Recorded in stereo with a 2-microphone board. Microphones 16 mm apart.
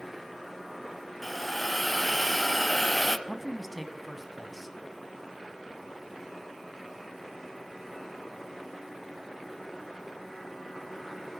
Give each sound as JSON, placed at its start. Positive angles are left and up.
{"t": 1.2, "sound": "a hiss", "side_deg": 5, "distance_m": 0.7}
{"t": 3.3, "sound": "a man speaking", "side_deg": -5, "distance_m": 1.1}